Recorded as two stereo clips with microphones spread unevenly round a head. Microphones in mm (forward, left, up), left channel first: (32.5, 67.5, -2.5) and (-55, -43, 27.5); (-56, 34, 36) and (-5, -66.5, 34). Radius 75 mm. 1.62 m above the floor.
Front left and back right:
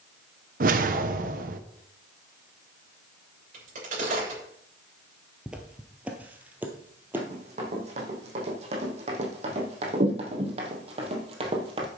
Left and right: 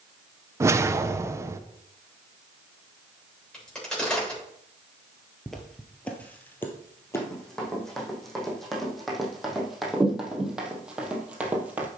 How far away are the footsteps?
About 1.6 m.